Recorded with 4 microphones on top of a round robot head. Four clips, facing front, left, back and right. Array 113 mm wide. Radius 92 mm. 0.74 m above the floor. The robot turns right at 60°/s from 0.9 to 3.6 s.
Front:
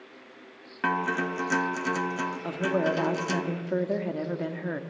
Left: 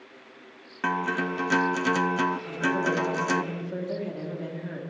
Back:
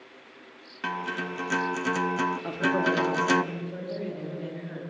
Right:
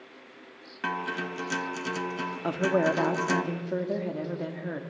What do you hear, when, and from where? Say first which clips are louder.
0.8 s a guitar: left 5 dB, front 5 dB; 30° left, 0.6 m; by 3.4 s 175° right, 0.6 m
2.4 s a woman speaking: right 2 dB, front 2 dB; 90° right, 1.2 m; by 4.8 s 20° right, 1.2 m